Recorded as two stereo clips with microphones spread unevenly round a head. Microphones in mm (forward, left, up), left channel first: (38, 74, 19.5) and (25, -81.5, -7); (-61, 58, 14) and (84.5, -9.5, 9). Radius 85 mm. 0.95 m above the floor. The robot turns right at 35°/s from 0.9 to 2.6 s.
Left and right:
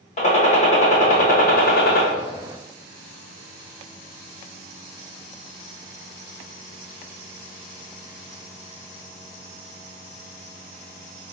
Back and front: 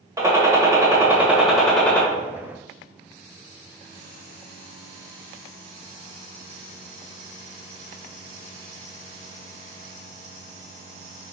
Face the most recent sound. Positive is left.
turn(degrees=100)